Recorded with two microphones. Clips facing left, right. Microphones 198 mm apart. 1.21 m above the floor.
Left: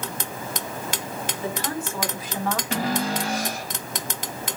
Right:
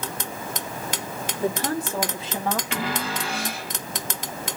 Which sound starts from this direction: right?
A woman speaking, at 1.4 s.